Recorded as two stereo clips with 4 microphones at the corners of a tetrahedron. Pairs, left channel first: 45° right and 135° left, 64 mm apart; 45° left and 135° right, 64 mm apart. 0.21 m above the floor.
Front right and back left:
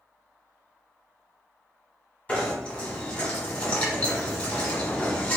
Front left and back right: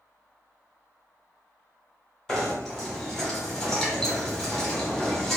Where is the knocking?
25° right, 1.3 m.